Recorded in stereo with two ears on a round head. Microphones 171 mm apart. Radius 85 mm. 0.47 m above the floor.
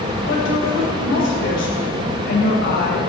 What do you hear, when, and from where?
0.3 s a woman speaking: 60° left (ahead or behind), 2.5 m